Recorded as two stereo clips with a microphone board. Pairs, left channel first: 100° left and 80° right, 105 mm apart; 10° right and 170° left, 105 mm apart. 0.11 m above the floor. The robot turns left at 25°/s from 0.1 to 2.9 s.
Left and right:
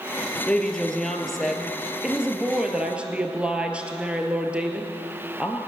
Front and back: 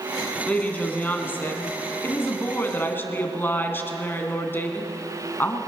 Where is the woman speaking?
40° left, 1.3 m; by 5.6 s 20° right, 1.3 m.